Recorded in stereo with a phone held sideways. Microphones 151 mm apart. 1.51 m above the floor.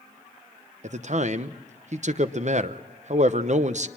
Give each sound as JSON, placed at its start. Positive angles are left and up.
{"t": 0.8, "sound": "a man speaking", "side_deg": -50, "distance_m": 0.9}